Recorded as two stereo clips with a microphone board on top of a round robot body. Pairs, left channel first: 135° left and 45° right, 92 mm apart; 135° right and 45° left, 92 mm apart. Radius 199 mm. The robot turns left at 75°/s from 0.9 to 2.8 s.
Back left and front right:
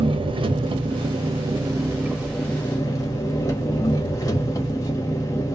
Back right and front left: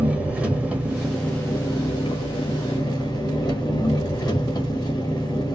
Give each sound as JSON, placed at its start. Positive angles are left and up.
{"t": 0.0, "sound": "an engine running", "azimuth_deg": -30, "distance_m": 1.2}